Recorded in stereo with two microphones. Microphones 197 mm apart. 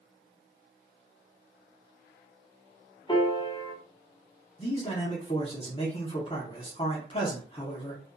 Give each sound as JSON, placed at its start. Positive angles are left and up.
{"t": 3.1, "sound": "a piano", "side_deg": 25, "distance_m": 0.7}
{"t": 4.6, "sound": "a man speaking", "side_deg": 30, "distance_m": 0.9}